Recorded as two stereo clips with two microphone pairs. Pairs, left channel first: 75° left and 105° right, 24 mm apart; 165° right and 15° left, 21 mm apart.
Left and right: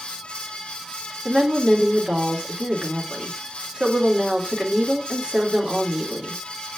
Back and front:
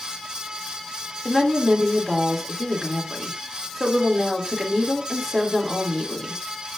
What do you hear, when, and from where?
1.2 s a woman speaking: 65° right, 2.5 m